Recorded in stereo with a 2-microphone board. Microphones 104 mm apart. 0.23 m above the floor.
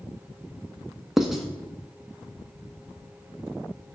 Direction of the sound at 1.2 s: 5° right (ahead or behind).